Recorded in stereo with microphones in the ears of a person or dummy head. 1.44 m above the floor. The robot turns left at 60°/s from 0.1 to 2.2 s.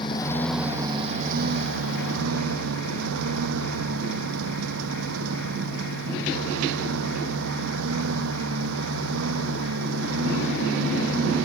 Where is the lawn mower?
25° left; by 11.5 s 100° right.